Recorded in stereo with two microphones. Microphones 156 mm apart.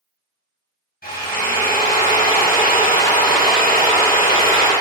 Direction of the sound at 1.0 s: 75° left (ahead or behind).